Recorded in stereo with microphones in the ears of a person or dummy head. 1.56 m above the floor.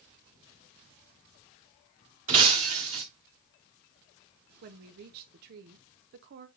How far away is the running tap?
I don't hear a running tap.